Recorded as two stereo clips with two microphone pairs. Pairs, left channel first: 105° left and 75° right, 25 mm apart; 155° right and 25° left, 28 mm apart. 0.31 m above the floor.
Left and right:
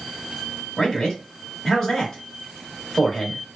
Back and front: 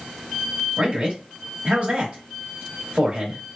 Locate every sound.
0.8 s a man speaking: 25° left, 1.5 m